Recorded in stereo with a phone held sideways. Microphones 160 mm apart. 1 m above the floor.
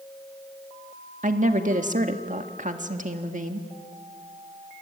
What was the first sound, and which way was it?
A woman speaking, 50° right (ahead or behind).